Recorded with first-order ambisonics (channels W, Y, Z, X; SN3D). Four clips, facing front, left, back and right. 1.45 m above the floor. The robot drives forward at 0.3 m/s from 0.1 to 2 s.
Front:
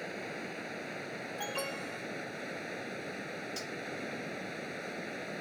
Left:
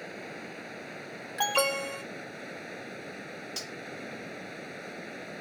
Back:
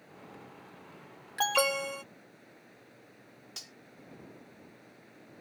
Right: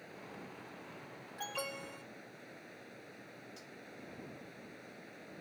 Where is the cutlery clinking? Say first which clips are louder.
Left 15 dB, front 6 dB; 95° left.